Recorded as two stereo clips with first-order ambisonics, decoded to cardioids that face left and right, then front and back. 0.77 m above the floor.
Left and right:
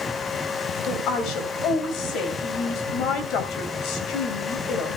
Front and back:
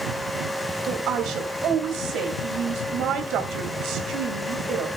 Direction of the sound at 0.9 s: 130° left.